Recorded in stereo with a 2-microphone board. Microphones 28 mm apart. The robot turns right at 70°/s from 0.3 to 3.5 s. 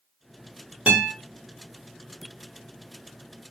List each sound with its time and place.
0.9 s a guitar: 50° right (ahead or behind), 1.3 m; by 1.1 s 55° right (ahead or behind), 1.3 m